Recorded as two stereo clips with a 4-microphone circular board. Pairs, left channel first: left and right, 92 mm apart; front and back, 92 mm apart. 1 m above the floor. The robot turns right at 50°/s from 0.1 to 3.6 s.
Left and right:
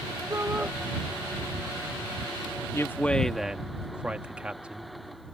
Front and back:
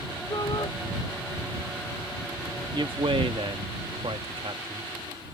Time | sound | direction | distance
0.3 | a shout | 40° right | ?
2.7 | a man speaking | 150° left | ?